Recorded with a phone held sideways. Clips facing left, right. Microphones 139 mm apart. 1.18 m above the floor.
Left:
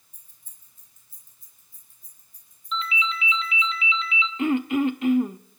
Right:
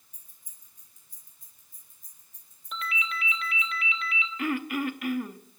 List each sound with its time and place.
0.1 s keys jangling: 15° right (ahead or behind), 7 m; by 3.7 s 25° right (ahead or behind), 9.5 m
2.7 s a ringtone: 65° right (ahead or behind), 1.5 m
4.4 s throat clearing: 25° left (ahead or behind), 0.8 m